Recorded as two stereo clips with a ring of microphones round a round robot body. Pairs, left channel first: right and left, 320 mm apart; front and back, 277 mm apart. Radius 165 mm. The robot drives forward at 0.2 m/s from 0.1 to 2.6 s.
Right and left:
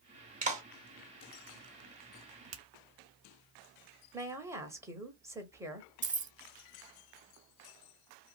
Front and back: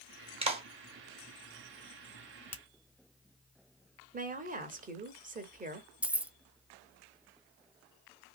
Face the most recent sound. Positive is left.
turn(degrees=100)